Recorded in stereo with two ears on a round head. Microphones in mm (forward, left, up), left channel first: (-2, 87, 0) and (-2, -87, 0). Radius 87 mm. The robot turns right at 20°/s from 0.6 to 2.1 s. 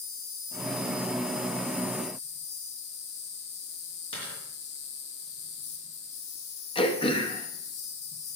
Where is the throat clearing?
25° left (ahead or behind), 0.9 m.